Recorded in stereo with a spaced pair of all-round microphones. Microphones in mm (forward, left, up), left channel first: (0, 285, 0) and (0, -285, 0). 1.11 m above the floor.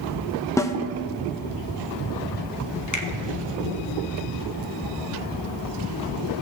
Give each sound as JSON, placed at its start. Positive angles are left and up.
{"t": 0.6, "sound": "a snare drum", "side_deg": 5, "distance_m": 0.7}
{"t": 2.9, "sound": "a finger snap", "side_deg": 30, "distance_m": 1.1}